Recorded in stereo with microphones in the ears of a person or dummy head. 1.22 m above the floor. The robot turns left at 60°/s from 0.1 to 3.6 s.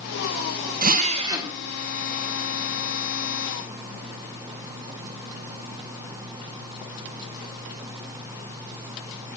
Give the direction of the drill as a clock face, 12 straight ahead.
4 o'clock.